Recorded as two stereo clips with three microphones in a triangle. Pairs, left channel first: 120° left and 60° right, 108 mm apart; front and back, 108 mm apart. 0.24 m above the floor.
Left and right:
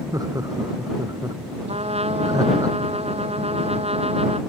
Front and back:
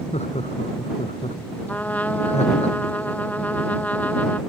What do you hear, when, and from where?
0.1 s laughter: 5° right
1.7 s a trumpet: 75° right